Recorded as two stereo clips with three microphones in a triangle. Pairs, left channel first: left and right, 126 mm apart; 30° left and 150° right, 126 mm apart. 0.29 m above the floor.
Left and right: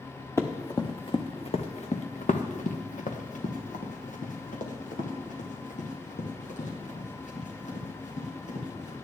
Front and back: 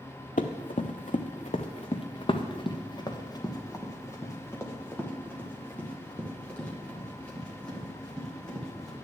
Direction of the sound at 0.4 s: 20° left.